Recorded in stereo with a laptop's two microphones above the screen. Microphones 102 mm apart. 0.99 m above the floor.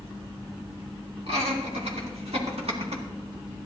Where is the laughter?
80° right, 2.5 m; by 3.0 s 75° right (ahead or behind), 1.5 m.